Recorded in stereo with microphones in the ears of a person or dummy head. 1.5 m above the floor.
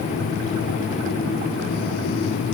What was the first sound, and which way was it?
Only background noise.